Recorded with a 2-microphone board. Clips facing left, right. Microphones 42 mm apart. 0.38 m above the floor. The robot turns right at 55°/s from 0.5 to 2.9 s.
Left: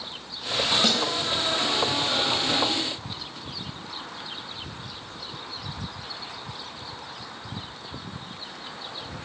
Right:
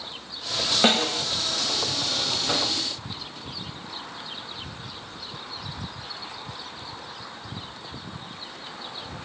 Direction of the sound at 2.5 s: 20° right (ahead or behind).